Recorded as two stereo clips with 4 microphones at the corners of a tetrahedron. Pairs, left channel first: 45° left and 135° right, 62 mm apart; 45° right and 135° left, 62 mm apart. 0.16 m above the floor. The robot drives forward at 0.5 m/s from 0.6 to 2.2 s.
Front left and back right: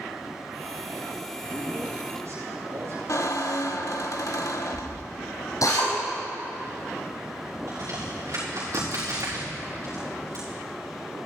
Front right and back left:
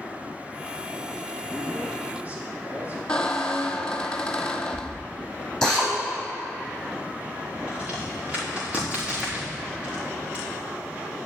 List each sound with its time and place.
1.4 s a man speaking: 160° right, 4.5 m
3.1 s a squeak: 30° left, 1.0 m
5.6 s a drill: 40° left, 4.5 m
7.7 s a crack: 160° right, 4.5 m